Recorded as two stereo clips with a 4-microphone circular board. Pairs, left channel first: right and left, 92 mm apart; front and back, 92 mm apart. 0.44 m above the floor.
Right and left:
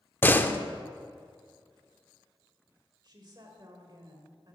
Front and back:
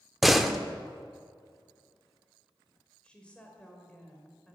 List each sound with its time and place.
0.2 s a door slam: 90° right, 0.7 m
3.0 s a woman speaking: 75° left, 1.8 m